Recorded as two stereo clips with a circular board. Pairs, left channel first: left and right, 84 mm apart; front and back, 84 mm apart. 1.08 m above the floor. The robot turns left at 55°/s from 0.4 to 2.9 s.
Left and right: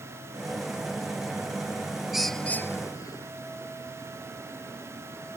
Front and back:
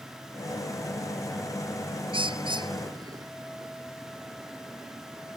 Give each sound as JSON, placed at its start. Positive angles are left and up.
{"t": 2.1, "sound": "a bird", "azimuth_deg": -175}